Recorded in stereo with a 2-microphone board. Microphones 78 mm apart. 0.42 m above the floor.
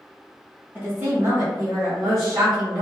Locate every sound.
0.8 s a woman speaking: 25° right (ahead or behind), 1.2 m; by 2.8 s 60° right (ahead or behind), 2 m